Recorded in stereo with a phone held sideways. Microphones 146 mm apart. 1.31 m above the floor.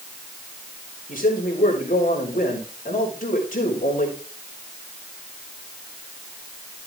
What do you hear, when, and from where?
1.1 s a man speaking: 70° left (ahead or behind), 4.5 m